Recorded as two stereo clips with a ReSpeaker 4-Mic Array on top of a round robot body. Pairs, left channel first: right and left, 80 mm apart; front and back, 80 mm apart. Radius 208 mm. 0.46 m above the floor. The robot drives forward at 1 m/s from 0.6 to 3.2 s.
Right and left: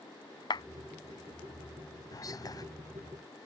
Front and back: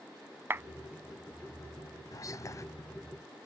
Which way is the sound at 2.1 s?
45° right.